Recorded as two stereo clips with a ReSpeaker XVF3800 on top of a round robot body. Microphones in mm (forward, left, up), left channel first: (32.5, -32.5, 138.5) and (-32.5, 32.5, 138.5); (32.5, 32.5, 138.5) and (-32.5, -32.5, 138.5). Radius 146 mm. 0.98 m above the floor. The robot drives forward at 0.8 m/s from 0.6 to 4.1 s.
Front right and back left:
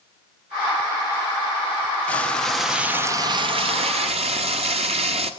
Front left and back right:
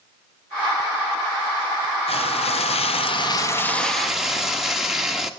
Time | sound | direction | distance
2.1 | frying | 30° left | 1.1 m